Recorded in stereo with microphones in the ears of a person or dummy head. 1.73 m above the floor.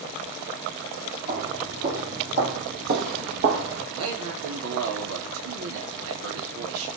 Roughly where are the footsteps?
Right.